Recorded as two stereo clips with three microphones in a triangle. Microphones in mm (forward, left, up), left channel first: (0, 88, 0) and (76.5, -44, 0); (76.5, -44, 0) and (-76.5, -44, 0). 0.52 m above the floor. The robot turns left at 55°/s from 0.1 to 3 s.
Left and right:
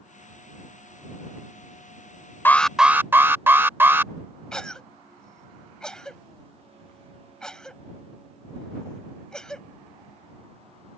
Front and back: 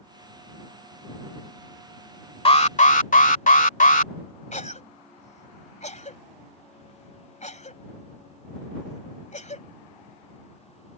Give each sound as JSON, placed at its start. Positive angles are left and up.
{"t": 2.5, "sound": "an alarm", "azimuth_deg": 45}
{"t": 4.5, "sound": "a cough", "azimuth_deg": 35}